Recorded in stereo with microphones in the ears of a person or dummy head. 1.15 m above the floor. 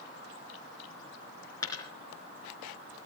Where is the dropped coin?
25° left (ahead or behind), 3.5 m.